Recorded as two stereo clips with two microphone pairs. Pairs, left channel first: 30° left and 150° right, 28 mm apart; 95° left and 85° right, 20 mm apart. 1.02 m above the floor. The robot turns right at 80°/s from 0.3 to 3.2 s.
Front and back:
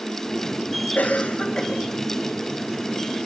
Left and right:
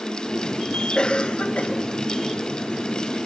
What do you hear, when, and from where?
0.9 s a cough: 40° left, 5 m; by 1.7 s 105° left, 5 m